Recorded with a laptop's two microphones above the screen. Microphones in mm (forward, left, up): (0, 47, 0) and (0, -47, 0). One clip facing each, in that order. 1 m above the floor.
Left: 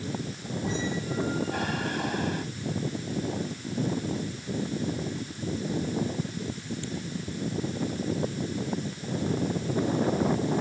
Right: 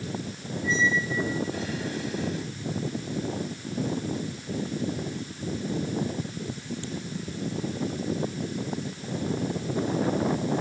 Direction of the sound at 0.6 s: 60° left (ahead or behind).